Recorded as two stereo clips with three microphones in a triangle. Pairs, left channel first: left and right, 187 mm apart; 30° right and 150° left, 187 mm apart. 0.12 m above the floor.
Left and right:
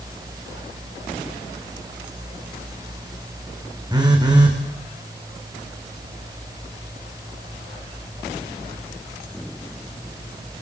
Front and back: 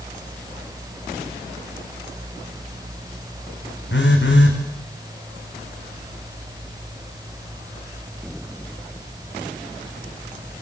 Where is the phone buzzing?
20° right, 4 m.